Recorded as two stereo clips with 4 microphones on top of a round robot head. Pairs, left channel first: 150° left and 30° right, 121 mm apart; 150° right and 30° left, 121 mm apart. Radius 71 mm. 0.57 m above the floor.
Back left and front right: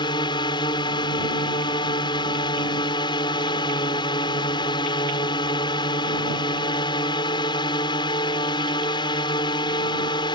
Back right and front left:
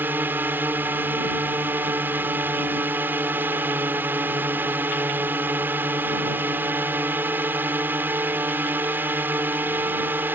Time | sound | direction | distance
0.0 | a drone | 105° left | ?